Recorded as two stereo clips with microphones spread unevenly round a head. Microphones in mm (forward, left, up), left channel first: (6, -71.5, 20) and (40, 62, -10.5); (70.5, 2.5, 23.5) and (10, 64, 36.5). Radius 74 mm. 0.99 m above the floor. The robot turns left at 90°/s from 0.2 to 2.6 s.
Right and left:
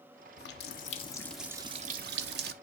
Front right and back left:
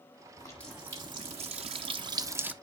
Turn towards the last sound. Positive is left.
turn(degrees=55)